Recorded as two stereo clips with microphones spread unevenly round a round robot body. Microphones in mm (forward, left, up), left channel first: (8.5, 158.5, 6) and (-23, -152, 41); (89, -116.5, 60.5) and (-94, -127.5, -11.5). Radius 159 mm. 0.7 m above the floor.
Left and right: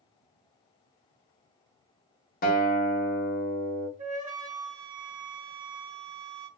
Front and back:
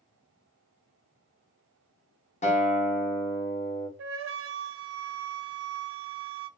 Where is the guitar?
70° left, 0.8 m.